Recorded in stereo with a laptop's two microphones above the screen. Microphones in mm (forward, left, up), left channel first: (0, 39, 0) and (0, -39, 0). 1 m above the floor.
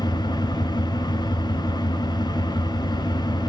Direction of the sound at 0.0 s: 70° left (ahead or behind).